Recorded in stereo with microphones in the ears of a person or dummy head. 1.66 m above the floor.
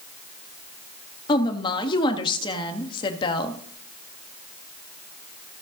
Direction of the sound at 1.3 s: 25° left (ahead or behind).